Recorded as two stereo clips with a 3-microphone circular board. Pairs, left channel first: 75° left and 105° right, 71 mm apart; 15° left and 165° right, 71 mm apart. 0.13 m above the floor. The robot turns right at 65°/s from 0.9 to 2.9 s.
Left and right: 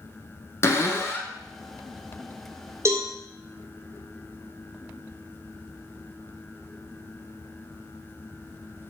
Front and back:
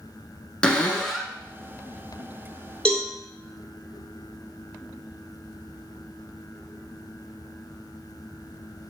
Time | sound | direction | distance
0.6 | a cupboard door | 80° left | 0.5 m
2.9 | a cowbell | 60° right | 1.0 m